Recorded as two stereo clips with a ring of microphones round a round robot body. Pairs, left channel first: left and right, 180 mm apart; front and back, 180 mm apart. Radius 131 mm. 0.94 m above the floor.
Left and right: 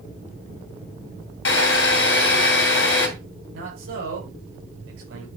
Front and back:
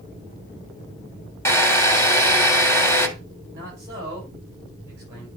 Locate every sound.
1.4 s a drill: 75° left, 2.5 m
3.5 s a man speaking: 100° right, 5 m